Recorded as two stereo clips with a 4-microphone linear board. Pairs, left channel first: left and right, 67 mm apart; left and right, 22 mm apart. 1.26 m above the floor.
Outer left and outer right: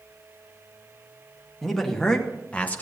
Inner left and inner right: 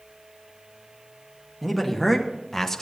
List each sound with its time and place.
1.6 s a man speaking: 5° left (ahead or behind), 1.8 m; by 2.8 s 25° left (ahead or behind), 0.9 m